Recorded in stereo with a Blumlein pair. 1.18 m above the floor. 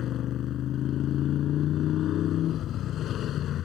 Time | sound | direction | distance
0.0 | a motorcycle | 30° left | ?